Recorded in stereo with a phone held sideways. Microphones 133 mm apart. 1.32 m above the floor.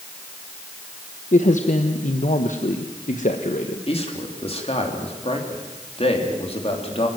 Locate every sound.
1.3 s a man speaking: 70° left (ahead or behind), 1.2 m
3.9 s a man speaking: 45° left (ahead or behind), 3 m